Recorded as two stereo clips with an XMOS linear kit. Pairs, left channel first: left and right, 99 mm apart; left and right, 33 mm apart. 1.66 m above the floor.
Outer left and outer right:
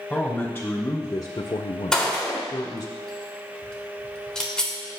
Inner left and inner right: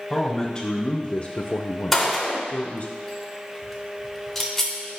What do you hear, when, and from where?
0.1 s a man speaking: 5° left (ahead or behind), 1.5 m; by 2.9 s 40° left (ahead or behind), 1.3 m
1.9 s a gunshot: 10° left (ahead or behind), 2.0 m